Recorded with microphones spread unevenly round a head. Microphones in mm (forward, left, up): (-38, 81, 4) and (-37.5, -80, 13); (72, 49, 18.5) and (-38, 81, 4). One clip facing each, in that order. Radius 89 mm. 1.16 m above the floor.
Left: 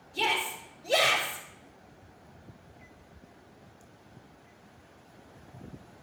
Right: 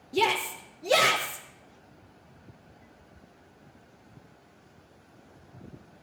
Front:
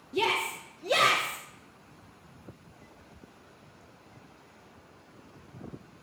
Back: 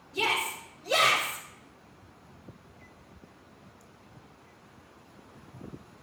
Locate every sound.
0.1 s a shout: 70° right, 0.7 m